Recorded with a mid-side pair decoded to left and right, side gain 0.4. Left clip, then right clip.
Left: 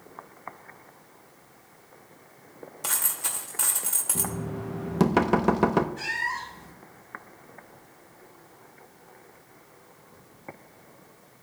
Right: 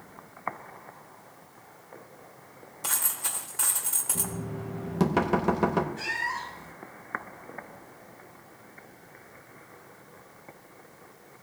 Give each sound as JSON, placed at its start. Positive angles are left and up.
{"t": 2.8, "sound": "a dropped coin", "azimuth_deg": 20, "distance_m": 2.0}
{"t": 4.2, "sound": "knocking", "azimuth_deg": 35, "distance_m": 0.8}
{"t": 6.0, "sound": "a cat meowing", "azimuth_deg": 20, "distance_m": 3.0}